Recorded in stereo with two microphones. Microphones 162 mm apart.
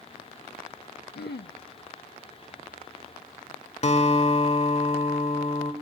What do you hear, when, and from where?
1.1 s throat clearing: 80° left, 0.5 m
3.8 s a guitar: 40° left (ahead or behind), 1.4 m